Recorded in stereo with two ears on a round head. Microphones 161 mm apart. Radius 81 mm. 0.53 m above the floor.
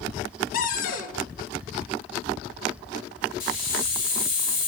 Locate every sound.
0.5 s a cupboard door: 50° left (ahead or behind), 0.5 m
3.4 s a hiss: 50° left (ahead or behind), 1.7 m